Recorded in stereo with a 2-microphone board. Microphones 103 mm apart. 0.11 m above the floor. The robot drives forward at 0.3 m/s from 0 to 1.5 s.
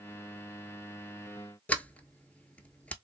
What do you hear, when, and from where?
1.7 s a sliding door: 15° left (ahead or behind), 0.6 m